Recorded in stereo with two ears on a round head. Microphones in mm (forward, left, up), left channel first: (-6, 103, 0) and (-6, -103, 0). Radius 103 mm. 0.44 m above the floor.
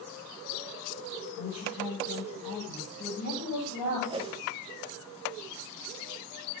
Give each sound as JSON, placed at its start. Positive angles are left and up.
{"t": 1.4, "sound": "a woman speaking", "side_deg": 25, "distance_m": 8.0}
{"t": 4.1, "sound": "a whoosh", "side_deg": -25, "distance_m": 0.8}